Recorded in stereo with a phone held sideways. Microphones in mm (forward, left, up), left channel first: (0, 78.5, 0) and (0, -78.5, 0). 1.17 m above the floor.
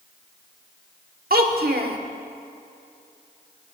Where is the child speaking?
75° right (ahead or behind), 1.7 m.